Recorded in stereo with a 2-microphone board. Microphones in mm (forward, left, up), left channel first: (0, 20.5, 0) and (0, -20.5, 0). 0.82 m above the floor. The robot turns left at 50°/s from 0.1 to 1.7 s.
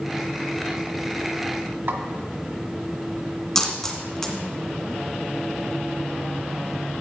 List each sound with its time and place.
1.9 s a snare drum: 55° right (ahead or behind), 1.2 m
3.5 s a dropped coin: 20° left (ahead or behind), 1.9 m